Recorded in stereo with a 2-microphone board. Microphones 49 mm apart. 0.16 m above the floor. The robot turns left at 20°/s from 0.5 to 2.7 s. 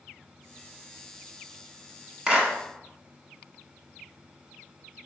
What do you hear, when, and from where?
2.3 s a clap: 20° right (ahead or behind), 1.0 m